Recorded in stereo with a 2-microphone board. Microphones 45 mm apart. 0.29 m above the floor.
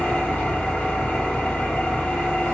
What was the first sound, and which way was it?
An engine running, 30° left (ahead or behind).